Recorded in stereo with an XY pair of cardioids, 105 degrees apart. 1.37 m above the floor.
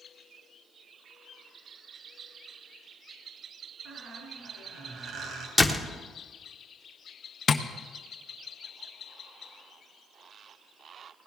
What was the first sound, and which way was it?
A squeak, 65° right.